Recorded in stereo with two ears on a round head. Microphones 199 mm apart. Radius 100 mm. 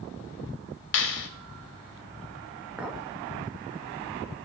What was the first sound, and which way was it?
A clap, 65° left (ahead or behind).